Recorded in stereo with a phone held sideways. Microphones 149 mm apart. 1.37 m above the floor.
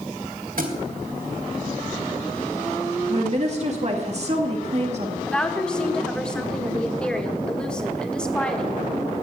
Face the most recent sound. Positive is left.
turn(degrees=5)  # may be behind; listen again after turning